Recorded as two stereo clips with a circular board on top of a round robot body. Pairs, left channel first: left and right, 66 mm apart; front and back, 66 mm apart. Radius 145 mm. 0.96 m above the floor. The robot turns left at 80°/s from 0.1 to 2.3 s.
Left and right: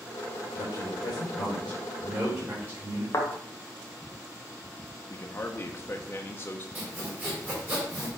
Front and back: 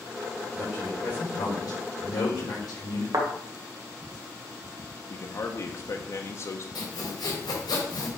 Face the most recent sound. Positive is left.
turn(degrees=-25)